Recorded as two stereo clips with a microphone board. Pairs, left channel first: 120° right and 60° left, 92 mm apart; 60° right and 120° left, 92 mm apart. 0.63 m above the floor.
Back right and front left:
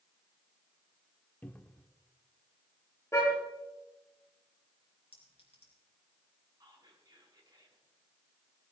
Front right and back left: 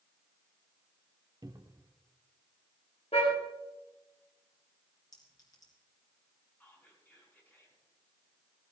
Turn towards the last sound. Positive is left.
turn(degrees=10)